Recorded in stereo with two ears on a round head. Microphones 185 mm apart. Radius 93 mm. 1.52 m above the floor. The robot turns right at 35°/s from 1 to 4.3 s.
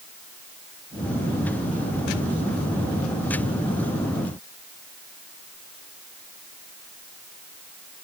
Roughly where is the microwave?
No microwave in this recording.